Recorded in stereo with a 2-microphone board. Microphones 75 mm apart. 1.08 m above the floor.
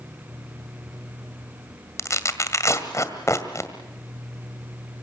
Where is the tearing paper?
40° left (ahead or behind), 1.8 m.